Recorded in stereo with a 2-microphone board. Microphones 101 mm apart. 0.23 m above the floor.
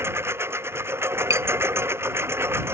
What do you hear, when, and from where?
0.0 s a lawn mower: 25° right (ahead or behind)
1.3 s tapping: 30° right (ahead or behind)